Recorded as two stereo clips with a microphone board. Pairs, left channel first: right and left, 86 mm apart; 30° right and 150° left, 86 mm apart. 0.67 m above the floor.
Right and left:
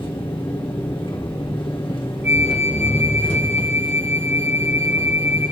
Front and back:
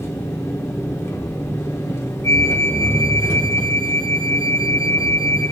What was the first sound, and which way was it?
An engine running, 85° right.